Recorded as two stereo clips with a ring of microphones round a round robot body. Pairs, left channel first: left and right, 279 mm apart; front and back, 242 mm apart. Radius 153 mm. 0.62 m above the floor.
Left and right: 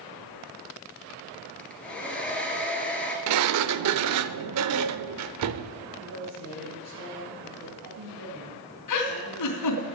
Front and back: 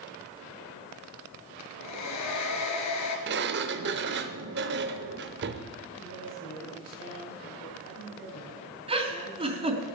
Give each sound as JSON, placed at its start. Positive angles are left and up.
{"t": 1.6, "sound": "a hair dryer", "azimuth_deg": 5, "distance_m": 2.5}
{"t": 3.3, "sound": "a sliding door", "azimuth_deg": -125, "distance_m": 0.6}
{"t": 6.0, "sound": "a woman speaking", "azimuth_deg": -60, "distance_m": 5.0}
{"t": 8.9, "sound": "a giggle", "azimuth_deg": 110, "distance_m": 3.0}